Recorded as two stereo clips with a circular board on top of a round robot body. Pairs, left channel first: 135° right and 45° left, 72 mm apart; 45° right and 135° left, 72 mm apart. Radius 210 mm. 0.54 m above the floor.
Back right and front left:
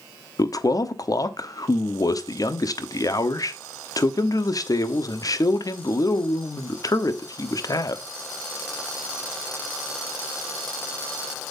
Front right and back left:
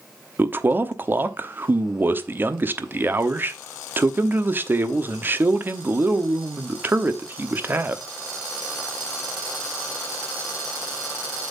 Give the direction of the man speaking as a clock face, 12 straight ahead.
6 o'clock.